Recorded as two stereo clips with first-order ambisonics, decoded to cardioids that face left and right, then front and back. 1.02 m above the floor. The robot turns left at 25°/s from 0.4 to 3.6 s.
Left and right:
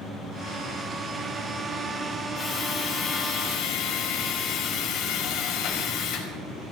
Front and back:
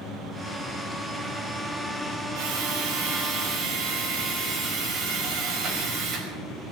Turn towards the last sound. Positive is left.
turn(degrees=135)